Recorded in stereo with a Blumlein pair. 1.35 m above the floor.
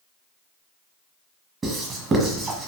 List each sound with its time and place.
1.6 s writing: 15° right, 1.3 m